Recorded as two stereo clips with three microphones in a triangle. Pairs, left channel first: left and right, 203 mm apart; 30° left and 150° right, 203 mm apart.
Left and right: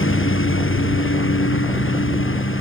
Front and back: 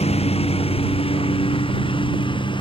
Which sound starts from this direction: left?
A lawn mower, at 0.0 s.